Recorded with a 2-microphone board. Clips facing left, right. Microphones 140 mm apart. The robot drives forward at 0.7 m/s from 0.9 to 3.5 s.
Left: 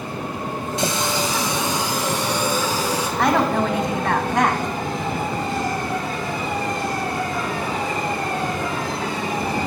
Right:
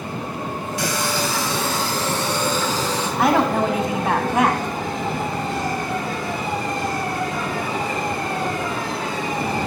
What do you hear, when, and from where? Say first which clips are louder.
0.8 s a running tap: left 1 dB; 25° left (ahead or behind), 0.9 m; by 3.1 s 10° left (ahead or behind), 2 m
3.2 s a woman speaking: right 1 dB; 5° right (ahead or behind), 1.9 m